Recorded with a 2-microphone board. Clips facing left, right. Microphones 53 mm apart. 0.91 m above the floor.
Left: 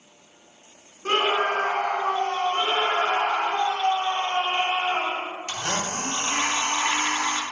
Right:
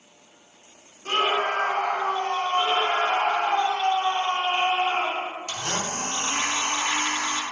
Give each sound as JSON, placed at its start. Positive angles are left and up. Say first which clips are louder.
{"t": 1.1, "sound": "a scream", "louder": "left 1 dB", "side_deg": 45, "distance_m": 1.2}
{"t": 2.5, "sound": "a scream", "louder": "right 3 dB", "side_deg": 30, "distance_m": 1.9}
{"t": 5.5, "sound": "a blender", "louder": "left 1 dB", "side_deg": 30, "distance_m": 0.6}